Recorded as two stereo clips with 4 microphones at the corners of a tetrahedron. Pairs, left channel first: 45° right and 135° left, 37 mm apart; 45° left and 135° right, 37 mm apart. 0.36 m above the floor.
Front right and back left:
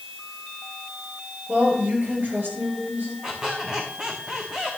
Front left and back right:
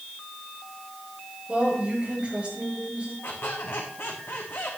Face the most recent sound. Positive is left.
turn(degrees=65)